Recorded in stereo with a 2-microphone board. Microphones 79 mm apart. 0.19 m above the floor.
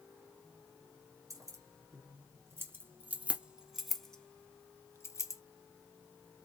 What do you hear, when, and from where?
1.3 s keys jangling: 45° right (ahead or behind), 1.8 m; by 5.4 s 45° left (ahead or behind), 1.1 m